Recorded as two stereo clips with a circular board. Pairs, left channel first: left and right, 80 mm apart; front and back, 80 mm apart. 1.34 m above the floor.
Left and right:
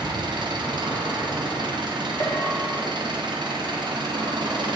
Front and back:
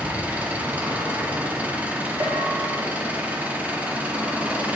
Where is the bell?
140° left, 1.6 m.